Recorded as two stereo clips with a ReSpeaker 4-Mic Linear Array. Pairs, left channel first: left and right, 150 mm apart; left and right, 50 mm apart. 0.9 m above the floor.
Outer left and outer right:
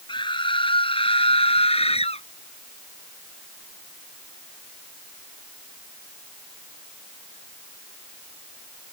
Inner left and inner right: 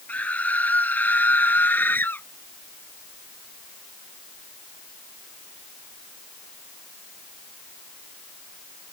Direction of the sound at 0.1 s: 30° left (ahead or behind).